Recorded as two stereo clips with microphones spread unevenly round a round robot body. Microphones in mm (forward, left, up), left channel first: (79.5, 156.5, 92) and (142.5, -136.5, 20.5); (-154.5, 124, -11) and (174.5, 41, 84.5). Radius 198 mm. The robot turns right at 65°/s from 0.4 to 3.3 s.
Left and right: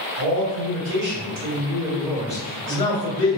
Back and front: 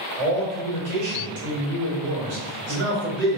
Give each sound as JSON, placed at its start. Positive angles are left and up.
{"t": 0.2, "sound": "a man speaking", "azimuth_deg": -100, "distance_m": 1.6}